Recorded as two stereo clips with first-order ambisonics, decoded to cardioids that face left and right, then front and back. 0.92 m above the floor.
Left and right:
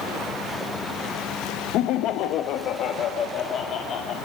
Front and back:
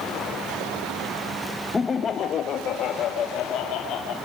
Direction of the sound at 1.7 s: 75° left.